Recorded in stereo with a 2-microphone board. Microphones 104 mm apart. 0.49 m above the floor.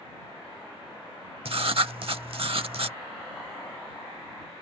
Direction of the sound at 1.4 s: 65° right (ahead or behind).